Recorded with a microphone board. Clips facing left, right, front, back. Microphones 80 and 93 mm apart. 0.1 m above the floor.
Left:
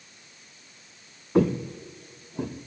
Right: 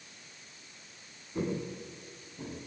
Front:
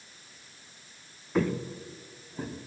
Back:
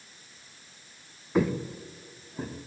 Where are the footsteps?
100° left, 1.3 m; by 2.7 s 90° left, 2.5 m.